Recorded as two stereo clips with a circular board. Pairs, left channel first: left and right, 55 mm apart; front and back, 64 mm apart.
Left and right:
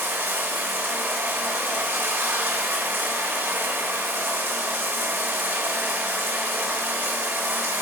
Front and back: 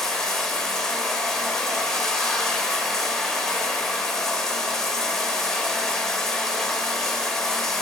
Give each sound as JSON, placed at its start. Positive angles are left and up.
{"t": 0.0, "sound": "running water", "azimuth_deg": -80, "distance_m": 1.1}